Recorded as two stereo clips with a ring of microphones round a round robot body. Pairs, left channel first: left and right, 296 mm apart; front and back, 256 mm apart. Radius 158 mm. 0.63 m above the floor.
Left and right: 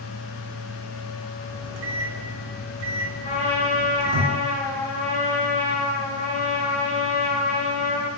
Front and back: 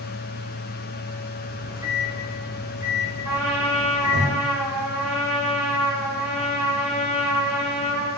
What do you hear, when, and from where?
1.5 s a microwave: 100° right, 0.7 m
3.2 s a trumpet: 175° left, 1.8 m